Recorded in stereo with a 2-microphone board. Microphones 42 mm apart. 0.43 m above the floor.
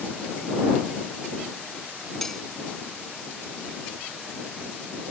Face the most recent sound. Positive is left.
turn(degrees=10)  # may be behind; listen again after turning